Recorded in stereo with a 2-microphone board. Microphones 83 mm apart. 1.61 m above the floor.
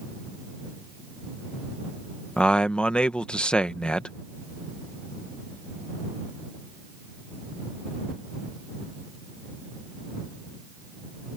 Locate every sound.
2.4 s a man speaking: 15° left (ahead or behind)